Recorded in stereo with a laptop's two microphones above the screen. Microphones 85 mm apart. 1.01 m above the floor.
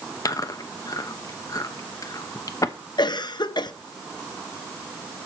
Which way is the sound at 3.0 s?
60° left (ahead or behind).